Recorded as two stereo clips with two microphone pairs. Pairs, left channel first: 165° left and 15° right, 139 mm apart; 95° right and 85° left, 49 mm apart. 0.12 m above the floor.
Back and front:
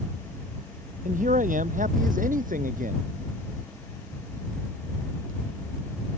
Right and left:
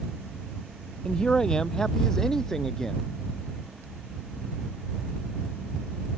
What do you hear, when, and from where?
1.1 s a man speaking: 25° right; by 3.0 s 15° right